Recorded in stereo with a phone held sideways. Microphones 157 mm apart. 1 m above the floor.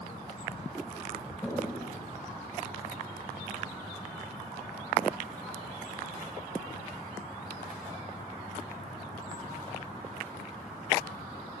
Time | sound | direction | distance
1.4 | a toilet flushing | 15° left (ahead or behind) | 4 m